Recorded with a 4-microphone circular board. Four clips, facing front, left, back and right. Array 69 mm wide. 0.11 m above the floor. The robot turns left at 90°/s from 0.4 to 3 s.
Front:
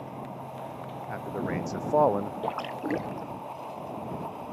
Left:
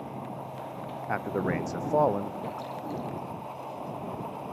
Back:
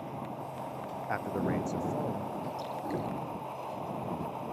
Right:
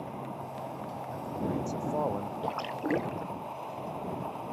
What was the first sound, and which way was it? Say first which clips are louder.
A man speaking: left 6 dB, even; 110° left.